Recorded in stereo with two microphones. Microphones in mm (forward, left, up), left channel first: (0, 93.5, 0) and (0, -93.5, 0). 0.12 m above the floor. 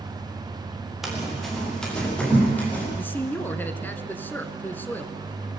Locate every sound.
1.0 s running footsteps: centre (ahead or behind), 8 m; by 2.8 s 10° left (ahead or behind), 10.5 m
2.9 s a man speaking: 10° left (ahead or behind), 1.3 m